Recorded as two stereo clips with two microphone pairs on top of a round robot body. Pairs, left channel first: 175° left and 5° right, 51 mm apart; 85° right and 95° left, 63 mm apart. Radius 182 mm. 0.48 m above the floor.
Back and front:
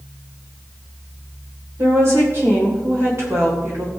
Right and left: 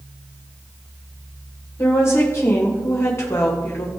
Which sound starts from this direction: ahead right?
A woman speaking, at 1.8 s.